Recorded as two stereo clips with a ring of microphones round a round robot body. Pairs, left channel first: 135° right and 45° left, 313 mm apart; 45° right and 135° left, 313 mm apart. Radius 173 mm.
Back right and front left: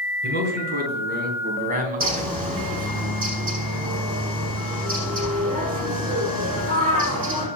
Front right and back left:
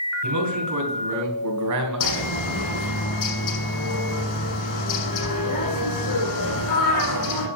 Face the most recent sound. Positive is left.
turn(degrees=-20)